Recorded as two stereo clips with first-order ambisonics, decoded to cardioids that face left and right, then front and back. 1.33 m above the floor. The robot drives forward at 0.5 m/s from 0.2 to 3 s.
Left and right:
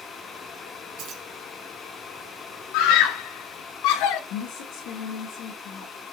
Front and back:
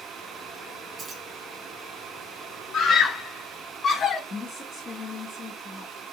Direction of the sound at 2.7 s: 65° left.